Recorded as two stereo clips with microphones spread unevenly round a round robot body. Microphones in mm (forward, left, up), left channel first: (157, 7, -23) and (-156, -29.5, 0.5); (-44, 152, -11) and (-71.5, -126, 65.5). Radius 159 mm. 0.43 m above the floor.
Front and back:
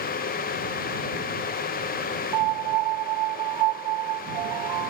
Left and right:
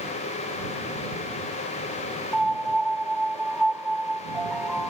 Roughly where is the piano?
Behind.